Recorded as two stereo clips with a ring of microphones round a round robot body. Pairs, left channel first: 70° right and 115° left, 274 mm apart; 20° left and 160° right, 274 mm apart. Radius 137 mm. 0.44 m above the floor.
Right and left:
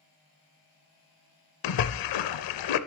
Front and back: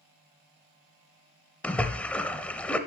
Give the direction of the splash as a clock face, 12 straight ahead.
2 o'clock.